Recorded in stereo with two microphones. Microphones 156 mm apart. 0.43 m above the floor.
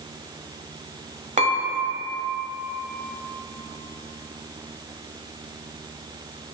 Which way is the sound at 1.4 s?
50° right (ahead or behind).